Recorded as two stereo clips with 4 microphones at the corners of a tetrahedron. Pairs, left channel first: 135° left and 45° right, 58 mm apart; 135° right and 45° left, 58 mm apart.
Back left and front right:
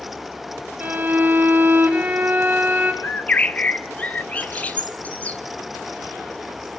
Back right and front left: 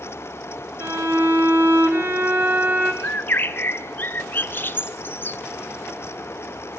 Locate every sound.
0.8 s a violin: 15° left, 2.5 m
3.0 s a bird: 170° right, 0.9 m